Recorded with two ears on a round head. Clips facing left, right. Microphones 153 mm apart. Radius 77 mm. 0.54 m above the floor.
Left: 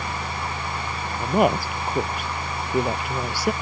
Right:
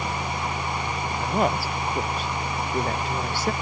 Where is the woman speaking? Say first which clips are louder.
Left 5 dB; 15° left (ahead or behind); by 3.5 s 10° left (ahead or behind).